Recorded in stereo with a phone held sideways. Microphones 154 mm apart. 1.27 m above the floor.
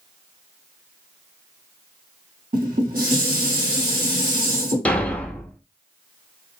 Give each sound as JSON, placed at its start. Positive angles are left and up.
{"t": 2.5, "sound": "dishes clattering", "side_deg": -60, "distance_m": 2.5}
{"t": 4.8, "sound": "a thud", "side_deg": 5, "distance_m": 0.7}